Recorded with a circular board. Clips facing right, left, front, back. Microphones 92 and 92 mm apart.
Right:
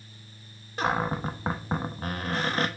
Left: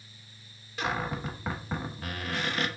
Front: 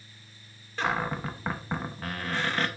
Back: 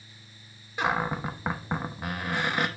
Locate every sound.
0.8 s a cupboard door: 110° right, 0.9 m